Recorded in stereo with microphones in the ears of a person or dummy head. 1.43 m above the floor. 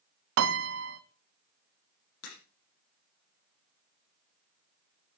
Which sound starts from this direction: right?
A piano, at 0.4 s.